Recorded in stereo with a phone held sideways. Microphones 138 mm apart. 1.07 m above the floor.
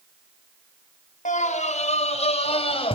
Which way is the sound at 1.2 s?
70° left (ahead or behind).